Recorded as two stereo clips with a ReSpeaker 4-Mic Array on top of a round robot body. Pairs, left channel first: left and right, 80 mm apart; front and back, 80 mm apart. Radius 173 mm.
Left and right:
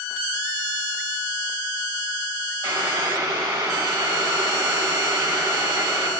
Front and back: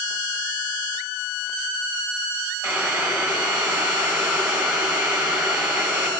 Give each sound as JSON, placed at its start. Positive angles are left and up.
{"t": 2.6, "sound": "boiling", "azimuth_deg": -135, "distance_m": 3.0}